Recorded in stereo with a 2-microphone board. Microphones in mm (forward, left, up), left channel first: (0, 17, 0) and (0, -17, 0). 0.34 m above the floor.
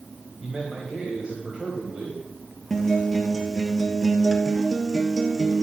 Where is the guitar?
5° left (ahead or behind), 1.1 m.